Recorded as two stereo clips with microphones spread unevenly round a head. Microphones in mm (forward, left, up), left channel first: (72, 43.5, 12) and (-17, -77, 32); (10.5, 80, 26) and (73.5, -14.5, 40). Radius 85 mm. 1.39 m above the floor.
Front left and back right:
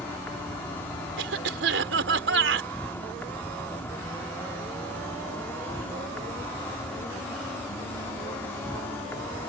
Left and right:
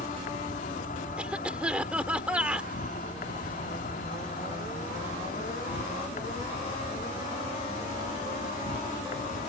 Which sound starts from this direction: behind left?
An insect, at 0.0 s.